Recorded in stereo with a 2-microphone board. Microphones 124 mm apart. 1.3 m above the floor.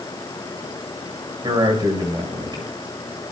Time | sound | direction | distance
1.4 | a man speaking | 35° right (ahead or behind) | 6.5 m